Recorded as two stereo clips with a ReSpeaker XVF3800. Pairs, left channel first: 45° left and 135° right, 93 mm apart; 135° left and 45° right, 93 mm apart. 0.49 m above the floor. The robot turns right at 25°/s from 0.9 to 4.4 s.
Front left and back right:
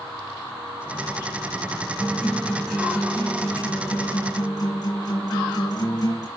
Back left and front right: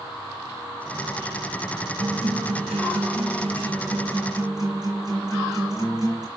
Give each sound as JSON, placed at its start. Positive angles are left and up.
{"t": 2.0, "sound": "a guitar", "azimuth_deg": -60, "distance_m": 7.5}